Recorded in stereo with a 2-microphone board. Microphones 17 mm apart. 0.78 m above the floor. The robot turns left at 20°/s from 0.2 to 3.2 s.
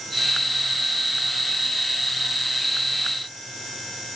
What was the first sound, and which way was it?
Only background noise.